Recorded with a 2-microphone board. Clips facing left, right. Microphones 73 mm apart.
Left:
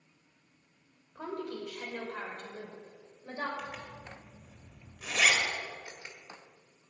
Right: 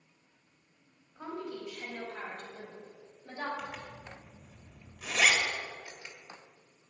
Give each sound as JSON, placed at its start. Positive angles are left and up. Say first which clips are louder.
{"t": 1.1, "sound": "a woman speaking", "louder": "left 2 dB", "side_deg": 75, "distance_m": 3.0}
{"t": 3.6, "sound": "a zipper", "louder": "even", "side_deg": 0, "distance_m": 1.9}
{"t": 5.8, "sound": "a camera shutter", "louder": "left 1 dB", "side_deg": 25, "distance_m": 1.5}